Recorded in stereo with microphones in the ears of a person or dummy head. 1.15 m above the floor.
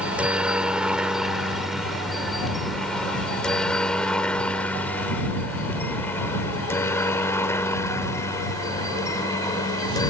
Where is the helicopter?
10° right (ahead or behind); by 10.1 s 15° left (ahead or behind).